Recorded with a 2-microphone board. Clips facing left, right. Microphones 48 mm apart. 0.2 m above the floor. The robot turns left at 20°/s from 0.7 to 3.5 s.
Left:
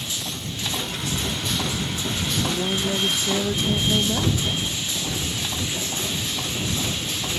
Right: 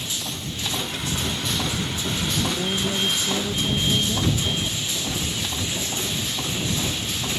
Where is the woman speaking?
10° left (ahead or behind); by 4.6 s 30° left (ahead or behind).